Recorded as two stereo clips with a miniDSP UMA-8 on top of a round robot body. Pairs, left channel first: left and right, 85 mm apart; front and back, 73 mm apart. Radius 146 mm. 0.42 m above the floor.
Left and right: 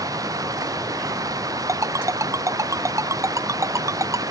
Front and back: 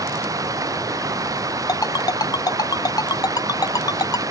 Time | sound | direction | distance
0.0 | running water | 140° right | ?
1.7 | a ringtone | 35° right | ?